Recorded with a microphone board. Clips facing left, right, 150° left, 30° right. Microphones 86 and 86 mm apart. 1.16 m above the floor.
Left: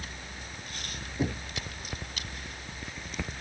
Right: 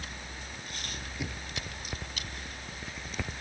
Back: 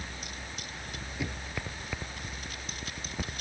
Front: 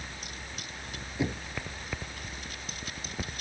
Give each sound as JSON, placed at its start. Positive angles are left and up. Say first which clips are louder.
{"t": 1.2, "sound": "knocking", "louder": "left 9 dB, front 6 dB", "azimuth_deg": 35}